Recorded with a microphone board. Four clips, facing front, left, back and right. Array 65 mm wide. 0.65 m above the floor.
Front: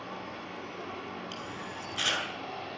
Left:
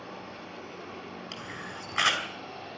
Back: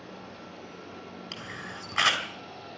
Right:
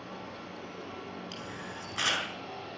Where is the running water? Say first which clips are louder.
Left 1 dB, front 4 dB; 10° left, 5.5 m.